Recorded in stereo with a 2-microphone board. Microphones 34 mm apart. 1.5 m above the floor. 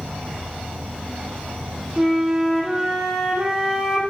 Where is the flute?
10° right (ahead or behind), 0.5 m.